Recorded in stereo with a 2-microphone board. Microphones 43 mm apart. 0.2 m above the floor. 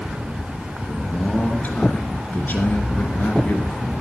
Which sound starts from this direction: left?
A man speaking, at 0.9 s.